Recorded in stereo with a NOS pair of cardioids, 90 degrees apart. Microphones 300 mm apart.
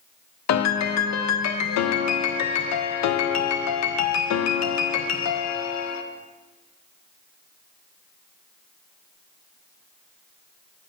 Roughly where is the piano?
Ahead left.